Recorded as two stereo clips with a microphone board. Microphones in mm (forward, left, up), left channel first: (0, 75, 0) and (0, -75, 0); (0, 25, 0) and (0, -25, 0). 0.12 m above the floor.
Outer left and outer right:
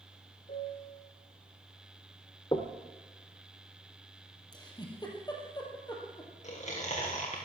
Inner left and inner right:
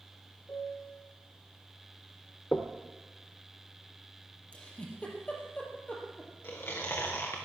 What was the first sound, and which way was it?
A piano, 80° left.